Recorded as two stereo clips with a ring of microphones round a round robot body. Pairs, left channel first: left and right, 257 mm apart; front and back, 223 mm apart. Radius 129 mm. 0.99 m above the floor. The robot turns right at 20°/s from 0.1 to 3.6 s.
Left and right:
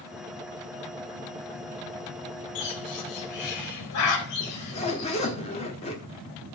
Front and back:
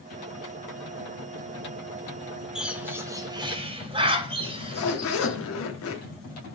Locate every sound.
2.5 s a bird: 95° left, 1.8 m; by 5.4 s 115° left, 1.8 m
4.4 s a zipper: 20° left, 1.3 m